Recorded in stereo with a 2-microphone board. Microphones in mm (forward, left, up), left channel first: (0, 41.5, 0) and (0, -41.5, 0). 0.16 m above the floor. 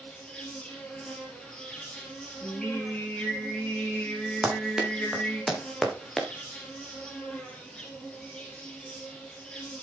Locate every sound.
0.0 s an insect: 10° left (ahead or behind), 4 m
2.4 s singing: 10° left (ahead or behind), 5.5 m
4.4 s running footsteps: 10° right (ahead or behind), 4.5 m; by 6.3 s 5° left (ahead or behind), 3.5 m